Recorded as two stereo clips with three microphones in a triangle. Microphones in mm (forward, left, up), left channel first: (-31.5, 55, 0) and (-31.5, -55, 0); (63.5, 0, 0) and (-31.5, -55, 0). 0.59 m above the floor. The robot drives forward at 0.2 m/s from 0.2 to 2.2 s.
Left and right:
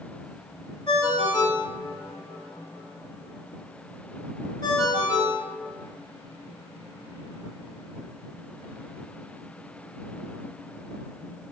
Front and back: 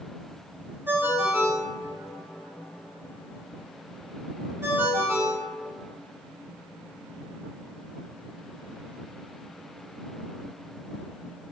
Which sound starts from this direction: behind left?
A ringtone, at 0.9 s.